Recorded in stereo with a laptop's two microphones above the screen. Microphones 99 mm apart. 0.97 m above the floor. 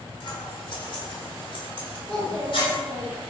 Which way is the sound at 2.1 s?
35° right (ahead or behind).